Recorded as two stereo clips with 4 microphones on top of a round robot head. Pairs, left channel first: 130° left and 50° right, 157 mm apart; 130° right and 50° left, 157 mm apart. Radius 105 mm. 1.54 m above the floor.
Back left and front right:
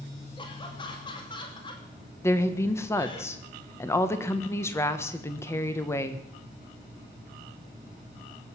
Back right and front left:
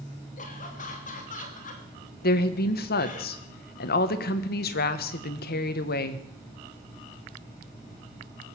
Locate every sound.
0.4 s laughter: 170° right, 2.5 m
2.2 s a woman speaking: 155° right, 1.3 m